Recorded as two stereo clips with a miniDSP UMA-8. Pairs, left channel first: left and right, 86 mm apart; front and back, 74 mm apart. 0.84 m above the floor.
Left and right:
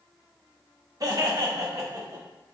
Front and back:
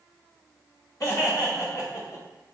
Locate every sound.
1.0 s laughter: 45° right, 1.8 m